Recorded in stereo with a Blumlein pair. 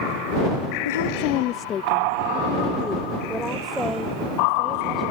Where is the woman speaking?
65° left; by 5.0 s 5° right.